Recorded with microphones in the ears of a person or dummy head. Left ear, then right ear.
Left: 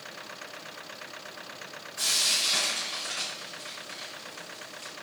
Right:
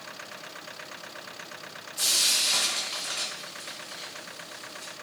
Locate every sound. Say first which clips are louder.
2.0 s frying: right 2 dB; 10° left (ahead or behind), 0.9 m